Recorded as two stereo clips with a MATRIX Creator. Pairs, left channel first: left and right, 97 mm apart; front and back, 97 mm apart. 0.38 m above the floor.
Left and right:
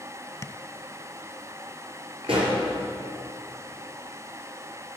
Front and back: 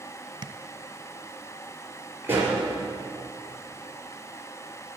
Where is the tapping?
145° left, 0.6 m.